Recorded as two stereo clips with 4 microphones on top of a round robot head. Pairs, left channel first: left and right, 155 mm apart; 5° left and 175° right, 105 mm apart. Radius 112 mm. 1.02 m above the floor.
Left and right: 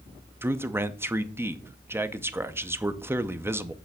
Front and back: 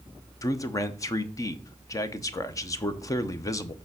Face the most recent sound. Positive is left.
turn(degrees=-25)